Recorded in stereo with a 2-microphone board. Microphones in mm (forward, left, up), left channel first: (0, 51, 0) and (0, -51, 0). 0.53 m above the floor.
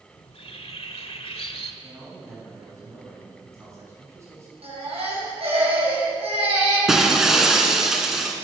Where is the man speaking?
30° right (ahead or behind), 6 m.